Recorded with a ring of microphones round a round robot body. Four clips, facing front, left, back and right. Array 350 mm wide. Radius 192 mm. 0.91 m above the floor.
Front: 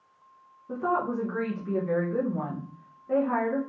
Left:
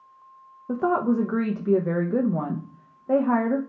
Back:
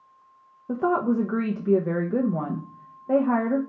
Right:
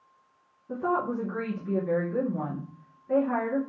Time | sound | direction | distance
0.7 | a woman speaking | 125° left | 0.7 m